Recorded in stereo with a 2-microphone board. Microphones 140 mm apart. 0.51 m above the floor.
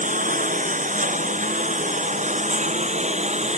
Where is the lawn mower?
65° right (ahead or behind); by 3.6 s 55° right (ahead or behind).